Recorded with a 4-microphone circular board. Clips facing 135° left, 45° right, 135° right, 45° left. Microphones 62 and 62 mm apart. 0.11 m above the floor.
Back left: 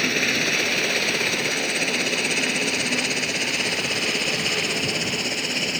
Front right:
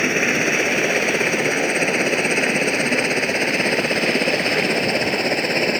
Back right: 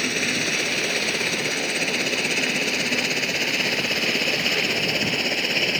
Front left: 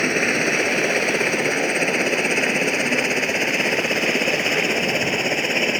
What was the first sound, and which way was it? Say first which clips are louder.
A helicopter: front right 4 dB, front left 5 dB; 5° left.